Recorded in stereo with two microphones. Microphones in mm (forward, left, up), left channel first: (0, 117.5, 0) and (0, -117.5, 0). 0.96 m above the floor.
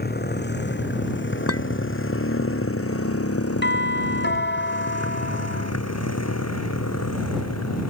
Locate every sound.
0.0 s a motorcycle: 40° left (ahead or behind); by 7.9 s 85° left
1.5 s a clink: 70° left (ahead or behind)
3.6 s a doorbell: 45° left (ahead or behind)